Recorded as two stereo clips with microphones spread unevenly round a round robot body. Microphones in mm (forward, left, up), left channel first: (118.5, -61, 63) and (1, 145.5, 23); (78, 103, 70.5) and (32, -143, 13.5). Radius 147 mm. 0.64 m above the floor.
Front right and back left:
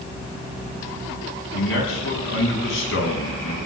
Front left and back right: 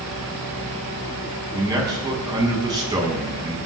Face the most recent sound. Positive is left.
turn(degrees=-25)